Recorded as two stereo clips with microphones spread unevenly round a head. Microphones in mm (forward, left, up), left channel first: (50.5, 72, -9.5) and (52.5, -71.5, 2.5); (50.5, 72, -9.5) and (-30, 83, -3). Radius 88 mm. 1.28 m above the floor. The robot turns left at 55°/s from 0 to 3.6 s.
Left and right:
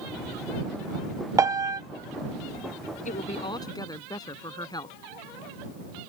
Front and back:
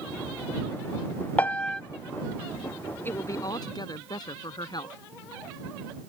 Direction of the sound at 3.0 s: 55° left.